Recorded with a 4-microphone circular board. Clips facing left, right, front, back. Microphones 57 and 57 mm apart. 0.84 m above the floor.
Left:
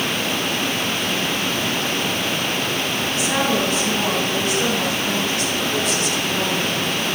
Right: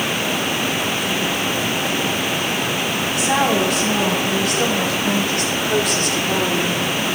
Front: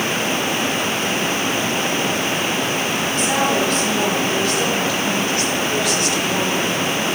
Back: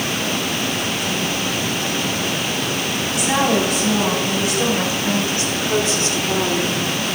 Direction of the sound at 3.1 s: 100° right.